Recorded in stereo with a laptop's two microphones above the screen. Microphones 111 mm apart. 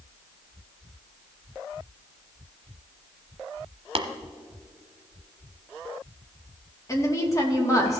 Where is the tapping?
60° right (ahead or behind), 0.8 m.